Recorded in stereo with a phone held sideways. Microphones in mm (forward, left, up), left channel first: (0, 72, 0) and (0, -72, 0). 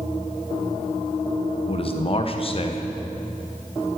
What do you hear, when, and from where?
1.7 s a man speaking: 40° left (ahead or behind), 1.0 m